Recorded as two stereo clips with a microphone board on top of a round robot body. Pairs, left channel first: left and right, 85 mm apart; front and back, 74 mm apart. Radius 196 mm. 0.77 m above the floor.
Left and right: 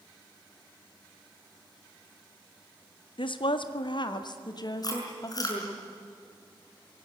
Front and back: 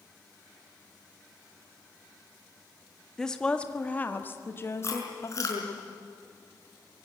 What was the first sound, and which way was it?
A woman speaking, 80° left.